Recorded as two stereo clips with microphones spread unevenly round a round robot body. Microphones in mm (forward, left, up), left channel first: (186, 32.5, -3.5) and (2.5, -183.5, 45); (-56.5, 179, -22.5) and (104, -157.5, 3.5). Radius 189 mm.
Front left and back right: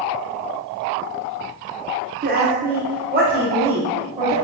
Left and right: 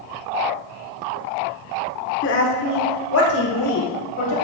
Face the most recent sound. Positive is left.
turn(degrees=160)